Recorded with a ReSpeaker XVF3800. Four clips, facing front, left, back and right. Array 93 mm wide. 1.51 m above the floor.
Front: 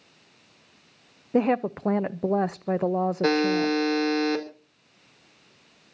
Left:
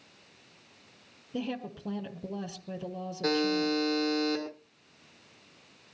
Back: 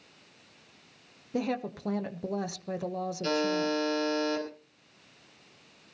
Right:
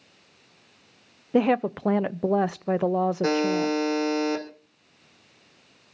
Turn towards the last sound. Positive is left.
turn(degrees=-15)